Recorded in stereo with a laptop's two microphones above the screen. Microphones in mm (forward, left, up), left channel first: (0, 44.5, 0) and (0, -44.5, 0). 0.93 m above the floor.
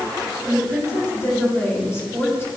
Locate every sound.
0.4 s a woman speaking: 30° left (ahead or behind), 4 m